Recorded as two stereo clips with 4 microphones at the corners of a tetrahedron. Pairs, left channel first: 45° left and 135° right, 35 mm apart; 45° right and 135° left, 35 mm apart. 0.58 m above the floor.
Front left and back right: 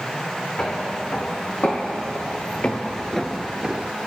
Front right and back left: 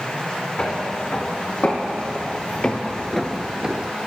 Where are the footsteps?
5° left, 2.5 m; by 3.9 s 170° right, 0.8 m.